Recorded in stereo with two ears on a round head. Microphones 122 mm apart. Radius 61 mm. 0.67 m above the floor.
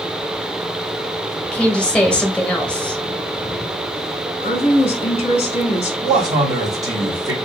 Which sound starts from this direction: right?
A man speaking, at 6.0 s.